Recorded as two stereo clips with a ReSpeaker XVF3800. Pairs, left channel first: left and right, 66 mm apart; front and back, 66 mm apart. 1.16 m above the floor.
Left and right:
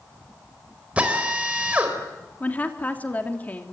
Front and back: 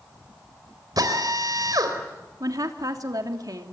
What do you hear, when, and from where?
1.0 s a drill: 160° right, 4 m
2.4 s a woman speaking: 155° left, 3 m